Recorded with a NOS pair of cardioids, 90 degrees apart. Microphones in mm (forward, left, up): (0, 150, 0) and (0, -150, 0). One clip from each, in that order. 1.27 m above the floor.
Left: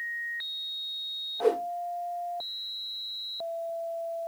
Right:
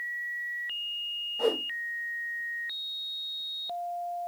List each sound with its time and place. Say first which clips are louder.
1.4 s a whoosh: left 2 dB; 45° right, 1.8 m